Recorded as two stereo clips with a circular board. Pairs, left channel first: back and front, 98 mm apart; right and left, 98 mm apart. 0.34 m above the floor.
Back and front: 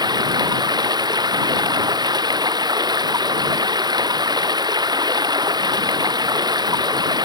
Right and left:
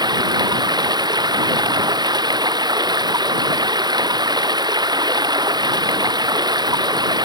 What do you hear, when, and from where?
0.0 s running water: 45° left